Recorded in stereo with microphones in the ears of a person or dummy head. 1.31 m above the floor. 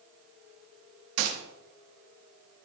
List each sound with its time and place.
1.2 s a gunshot: 75° right (ahead or behind), 3 m